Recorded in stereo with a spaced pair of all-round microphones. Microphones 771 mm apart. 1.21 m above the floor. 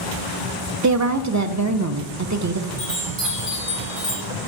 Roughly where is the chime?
Right.